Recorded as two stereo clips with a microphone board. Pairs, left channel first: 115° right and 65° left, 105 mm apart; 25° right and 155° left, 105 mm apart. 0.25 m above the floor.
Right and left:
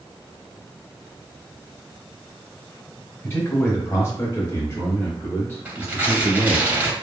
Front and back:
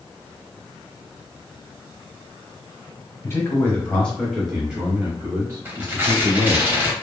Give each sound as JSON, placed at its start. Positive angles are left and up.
{"t": 3.2, "sound": "a man speaking", "azimuth_deg": -65, "distance_m": 1.1}
{"t": 5.7, "sound": "tearing paper", "azimuth_deg": 115, "distance_m": 0.8}